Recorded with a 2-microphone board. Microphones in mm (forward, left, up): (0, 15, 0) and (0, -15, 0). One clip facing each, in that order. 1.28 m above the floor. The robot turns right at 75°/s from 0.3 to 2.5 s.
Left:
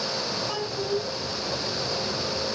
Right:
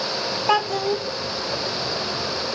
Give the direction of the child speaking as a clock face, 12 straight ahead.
3 o'clock.